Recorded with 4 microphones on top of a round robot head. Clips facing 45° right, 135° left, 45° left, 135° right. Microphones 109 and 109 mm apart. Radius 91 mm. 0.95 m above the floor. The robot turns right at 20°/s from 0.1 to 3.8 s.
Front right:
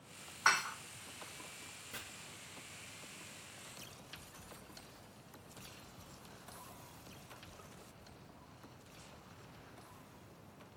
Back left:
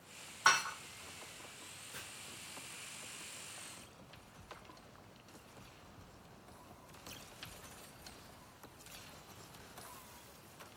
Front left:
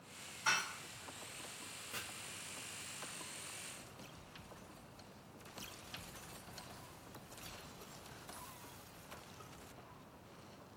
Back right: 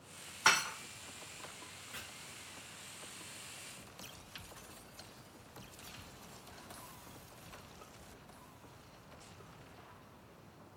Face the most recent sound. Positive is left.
turn(degrees=20)